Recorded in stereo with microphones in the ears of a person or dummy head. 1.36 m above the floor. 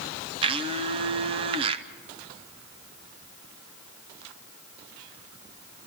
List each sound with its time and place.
0.4 s a blender: 25° right (ahead or behind), 0.7 m